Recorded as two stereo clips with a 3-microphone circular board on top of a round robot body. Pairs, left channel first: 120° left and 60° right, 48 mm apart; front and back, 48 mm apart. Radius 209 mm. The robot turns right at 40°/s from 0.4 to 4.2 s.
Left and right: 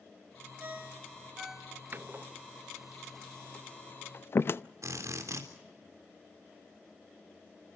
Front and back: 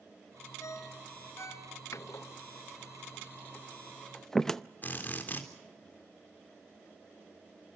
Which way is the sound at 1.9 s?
10° right.